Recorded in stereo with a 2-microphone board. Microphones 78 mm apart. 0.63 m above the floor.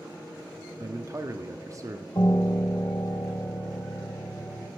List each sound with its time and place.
0.8 s a man speaking: 40° right (ahead or behind), 0.9 m
2.1 s a piano: 50° left (ahead or behind), 2 m